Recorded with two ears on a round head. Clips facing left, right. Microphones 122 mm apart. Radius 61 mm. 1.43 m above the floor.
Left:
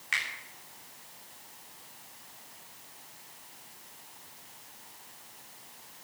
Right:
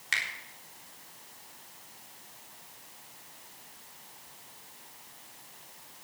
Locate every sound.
0.1 s a finger snap: 45° right (ahead or behind), 4 m